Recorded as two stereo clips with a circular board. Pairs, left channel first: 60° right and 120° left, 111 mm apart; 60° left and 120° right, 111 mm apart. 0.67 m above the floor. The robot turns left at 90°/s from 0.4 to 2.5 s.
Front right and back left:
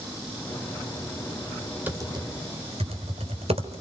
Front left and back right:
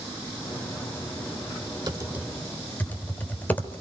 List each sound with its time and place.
1.9 s typing on a keyboard: 170° right, 3 m; by 3.8 s 135° left, 3 m